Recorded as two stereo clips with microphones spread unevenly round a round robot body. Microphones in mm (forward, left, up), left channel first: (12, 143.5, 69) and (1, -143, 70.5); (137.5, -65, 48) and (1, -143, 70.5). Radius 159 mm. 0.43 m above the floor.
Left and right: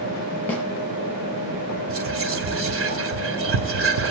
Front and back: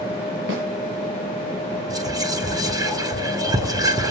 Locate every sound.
0.5 s a snare drum: 170° left, 4.5 m
1.9 s whispering: 80° right, 1.8 m